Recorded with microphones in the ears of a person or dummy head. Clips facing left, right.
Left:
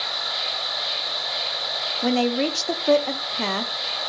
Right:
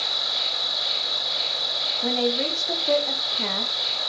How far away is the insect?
About 1.7 m.